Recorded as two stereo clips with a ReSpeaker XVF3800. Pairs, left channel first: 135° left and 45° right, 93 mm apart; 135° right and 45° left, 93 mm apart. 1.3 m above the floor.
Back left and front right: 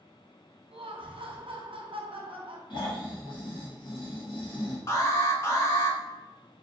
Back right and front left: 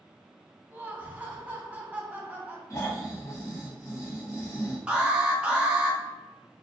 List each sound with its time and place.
0.7 s laughter: 25° right, 0.8 m
2.7 s snoring: 170° left, 1.0 m
4.9 s an alarm: 115° left, 0.7 m